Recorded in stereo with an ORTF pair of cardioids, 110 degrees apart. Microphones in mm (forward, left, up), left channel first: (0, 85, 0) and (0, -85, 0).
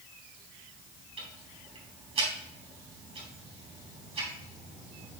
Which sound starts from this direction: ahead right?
Ticking, at 1.2 s.